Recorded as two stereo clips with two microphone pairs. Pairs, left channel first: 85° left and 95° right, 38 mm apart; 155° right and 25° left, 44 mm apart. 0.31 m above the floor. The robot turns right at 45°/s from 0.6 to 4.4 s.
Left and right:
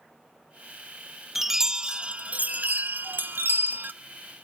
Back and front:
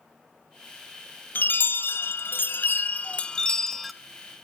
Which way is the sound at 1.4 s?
Straight behind.